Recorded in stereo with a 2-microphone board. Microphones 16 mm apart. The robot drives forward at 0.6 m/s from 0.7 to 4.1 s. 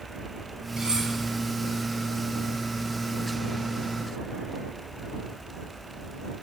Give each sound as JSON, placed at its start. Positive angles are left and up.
{"t": 0.8, "sound": "cutlery clinking", "side_deg": -85, "distance_m": 9.5}